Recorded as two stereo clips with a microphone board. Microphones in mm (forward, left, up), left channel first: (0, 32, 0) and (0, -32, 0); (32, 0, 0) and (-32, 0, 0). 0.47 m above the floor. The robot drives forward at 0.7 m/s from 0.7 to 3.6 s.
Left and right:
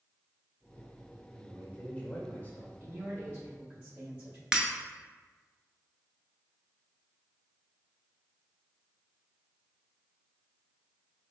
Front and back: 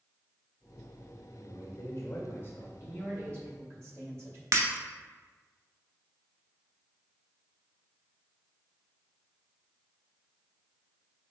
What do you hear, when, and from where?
1.3 s a man speaking: 20° left, 1.8 m; by 2.7 s 45° left, 1.1 m
2.8 s a man speaking: 130° right, 1.3 m; by 4.4 s 150° right, 1.7 m
4.5 s breaking glass: 165° right, 0.7 m